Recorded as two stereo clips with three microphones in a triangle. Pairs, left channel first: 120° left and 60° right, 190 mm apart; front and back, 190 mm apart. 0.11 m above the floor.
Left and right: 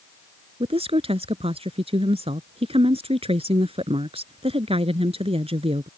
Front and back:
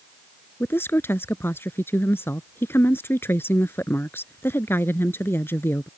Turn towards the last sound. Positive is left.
turn(degrees=-65)